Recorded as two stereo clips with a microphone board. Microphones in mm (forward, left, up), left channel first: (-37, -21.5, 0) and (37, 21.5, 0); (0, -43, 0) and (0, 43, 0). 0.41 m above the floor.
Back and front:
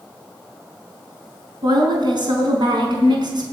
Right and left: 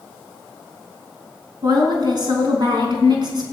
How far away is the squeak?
I don't hear a squeak.